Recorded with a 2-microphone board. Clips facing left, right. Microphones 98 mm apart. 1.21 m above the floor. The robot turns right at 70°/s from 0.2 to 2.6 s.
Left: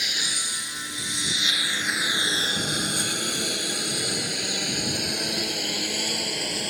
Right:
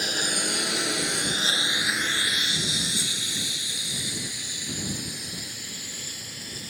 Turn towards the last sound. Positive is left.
turn(degrees=85)